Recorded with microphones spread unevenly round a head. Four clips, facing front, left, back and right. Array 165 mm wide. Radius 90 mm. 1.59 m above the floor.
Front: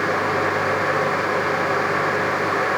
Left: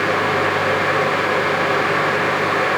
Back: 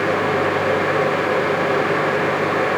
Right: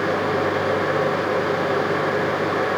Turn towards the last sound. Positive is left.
No sound to turn to.